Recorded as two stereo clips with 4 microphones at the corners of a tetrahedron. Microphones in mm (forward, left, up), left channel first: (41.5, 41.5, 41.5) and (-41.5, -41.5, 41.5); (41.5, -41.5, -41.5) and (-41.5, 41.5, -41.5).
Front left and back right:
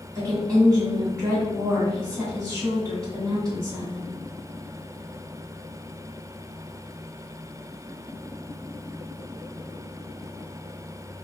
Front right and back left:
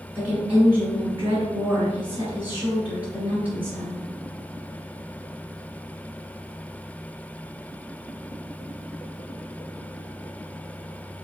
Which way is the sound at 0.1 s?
165° right.